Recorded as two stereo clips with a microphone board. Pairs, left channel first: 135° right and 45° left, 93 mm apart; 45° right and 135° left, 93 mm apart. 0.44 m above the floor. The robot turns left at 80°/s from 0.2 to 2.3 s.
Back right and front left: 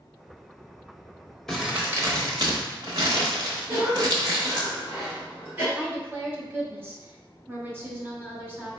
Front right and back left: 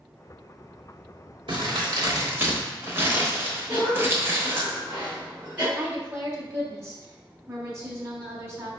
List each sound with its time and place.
1.5 s crumpling: 140° left, 0.9 m; by 4.7 s 75° left, 0.9 m
3.7 s a cough: 80° left, 1.8 m
5.8 s a woman speaking: 95° left, 1.1 m